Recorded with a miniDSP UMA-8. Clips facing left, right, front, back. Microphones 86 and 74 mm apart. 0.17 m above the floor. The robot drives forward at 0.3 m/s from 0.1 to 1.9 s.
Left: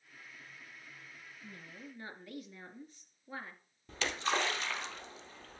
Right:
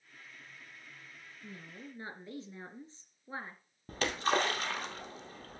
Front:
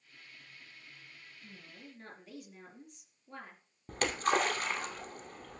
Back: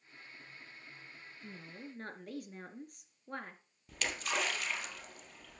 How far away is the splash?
About 2 m.